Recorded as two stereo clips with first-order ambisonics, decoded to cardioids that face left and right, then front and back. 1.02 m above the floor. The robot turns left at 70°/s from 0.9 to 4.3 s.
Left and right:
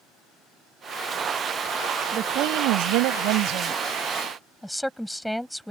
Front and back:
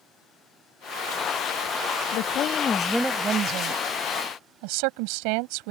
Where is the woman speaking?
30° right; by 5.7 s 175° left.